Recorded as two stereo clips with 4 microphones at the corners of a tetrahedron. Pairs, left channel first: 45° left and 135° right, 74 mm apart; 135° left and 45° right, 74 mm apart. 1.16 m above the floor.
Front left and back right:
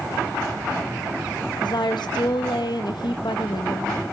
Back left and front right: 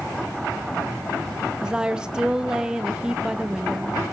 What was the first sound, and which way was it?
A woman speaking, 35° left.